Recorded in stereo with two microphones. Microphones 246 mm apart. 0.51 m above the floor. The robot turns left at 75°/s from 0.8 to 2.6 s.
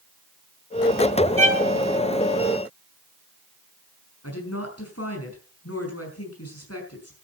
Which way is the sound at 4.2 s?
75° left (ahead or behind).